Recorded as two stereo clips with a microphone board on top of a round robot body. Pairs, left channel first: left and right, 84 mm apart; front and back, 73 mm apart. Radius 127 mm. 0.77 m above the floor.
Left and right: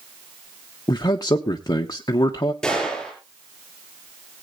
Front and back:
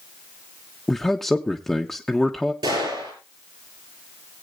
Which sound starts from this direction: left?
A man speaking, at 0.9 s.